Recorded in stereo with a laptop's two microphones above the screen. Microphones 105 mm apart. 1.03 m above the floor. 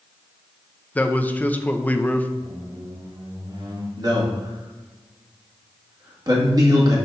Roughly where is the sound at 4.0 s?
Right.